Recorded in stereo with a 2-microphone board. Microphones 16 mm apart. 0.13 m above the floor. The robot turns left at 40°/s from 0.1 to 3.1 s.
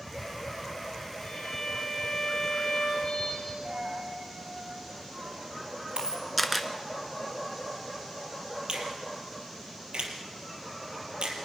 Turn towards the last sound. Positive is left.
turn(degrees=-65)  # may be behind; listen again after turning